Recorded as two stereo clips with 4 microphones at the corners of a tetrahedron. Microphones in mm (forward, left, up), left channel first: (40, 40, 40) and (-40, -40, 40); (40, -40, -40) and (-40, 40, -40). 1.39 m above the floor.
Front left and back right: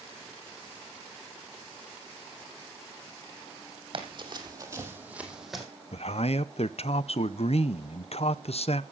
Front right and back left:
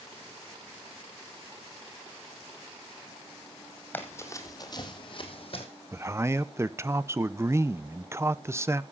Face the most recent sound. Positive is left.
turn(degrees=70)